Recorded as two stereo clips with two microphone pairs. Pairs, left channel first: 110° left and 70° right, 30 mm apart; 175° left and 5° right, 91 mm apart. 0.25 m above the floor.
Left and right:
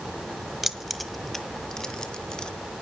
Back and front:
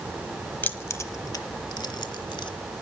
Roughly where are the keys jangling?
Behind right.